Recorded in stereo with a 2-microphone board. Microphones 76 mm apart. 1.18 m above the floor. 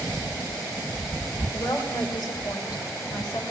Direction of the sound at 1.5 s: 75° left (ahead or behind).